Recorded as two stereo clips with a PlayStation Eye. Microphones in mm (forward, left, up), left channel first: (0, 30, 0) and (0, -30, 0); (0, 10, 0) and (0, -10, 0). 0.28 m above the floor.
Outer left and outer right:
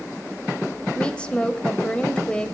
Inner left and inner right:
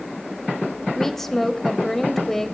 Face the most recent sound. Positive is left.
turn(degrees=15)  # may be behind; listen again after turning